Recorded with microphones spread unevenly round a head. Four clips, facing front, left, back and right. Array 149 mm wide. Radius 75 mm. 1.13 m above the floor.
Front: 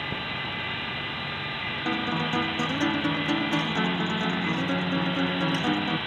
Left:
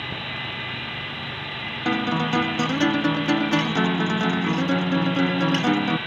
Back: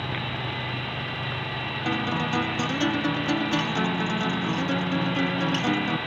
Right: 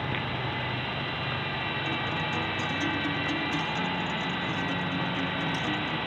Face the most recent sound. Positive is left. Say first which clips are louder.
# left 13 dB, back 1 dB
turn(degrees=95)